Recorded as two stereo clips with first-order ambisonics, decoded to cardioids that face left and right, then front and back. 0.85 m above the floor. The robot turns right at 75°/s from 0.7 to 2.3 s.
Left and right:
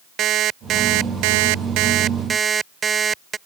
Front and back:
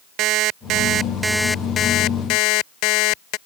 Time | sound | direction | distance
0.2 | an alarm clock | 140° right | ?